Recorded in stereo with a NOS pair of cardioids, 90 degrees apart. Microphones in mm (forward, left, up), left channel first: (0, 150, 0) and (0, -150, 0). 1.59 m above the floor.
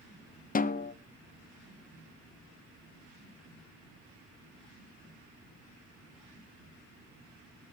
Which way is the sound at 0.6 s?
25° left.